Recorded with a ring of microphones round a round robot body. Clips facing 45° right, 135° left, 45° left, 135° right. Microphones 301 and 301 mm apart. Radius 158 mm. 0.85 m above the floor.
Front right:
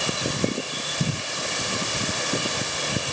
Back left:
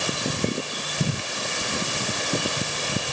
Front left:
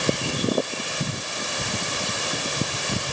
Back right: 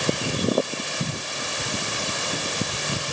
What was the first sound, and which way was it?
Only background noise.